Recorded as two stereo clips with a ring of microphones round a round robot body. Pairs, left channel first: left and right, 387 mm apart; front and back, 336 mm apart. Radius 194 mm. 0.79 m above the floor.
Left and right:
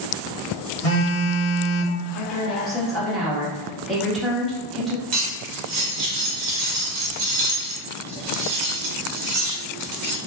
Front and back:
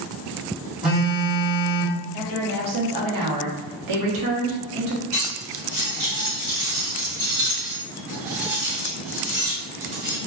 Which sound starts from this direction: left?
A phone buzzing, at 0.8 s.